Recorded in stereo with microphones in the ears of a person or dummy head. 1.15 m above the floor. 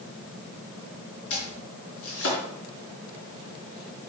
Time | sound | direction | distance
1.3 | chopping | 75° left (ahead or behind) | 4 m